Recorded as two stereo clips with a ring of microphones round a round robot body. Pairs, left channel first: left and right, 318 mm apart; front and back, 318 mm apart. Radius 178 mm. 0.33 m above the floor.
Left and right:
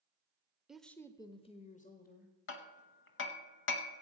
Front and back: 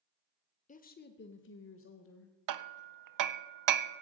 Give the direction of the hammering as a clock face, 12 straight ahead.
7 o'clock.